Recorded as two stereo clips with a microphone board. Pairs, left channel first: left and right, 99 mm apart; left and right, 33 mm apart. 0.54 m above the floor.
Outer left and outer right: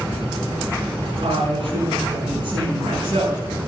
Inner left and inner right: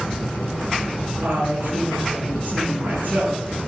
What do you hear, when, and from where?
1.2 s a woman speaking: 55° right (ahead or behind), 6 m